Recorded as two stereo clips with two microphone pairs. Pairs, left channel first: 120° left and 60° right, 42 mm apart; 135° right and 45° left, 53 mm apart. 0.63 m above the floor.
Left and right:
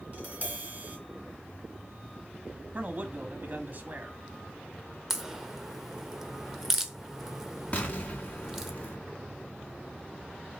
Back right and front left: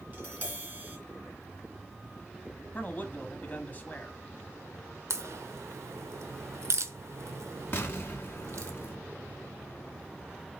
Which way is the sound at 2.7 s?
85° right.